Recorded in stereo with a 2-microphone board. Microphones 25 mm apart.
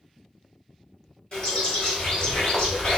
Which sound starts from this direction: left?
A bird, at 1.3 s.